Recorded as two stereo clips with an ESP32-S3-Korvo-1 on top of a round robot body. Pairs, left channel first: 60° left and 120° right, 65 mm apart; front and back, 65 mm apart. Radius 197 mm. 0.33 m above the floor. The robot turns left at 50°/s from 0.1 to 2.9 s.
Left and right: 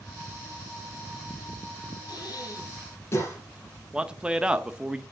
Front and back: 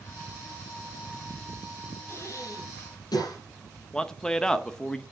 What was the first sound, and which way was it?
Breathing, 55° left.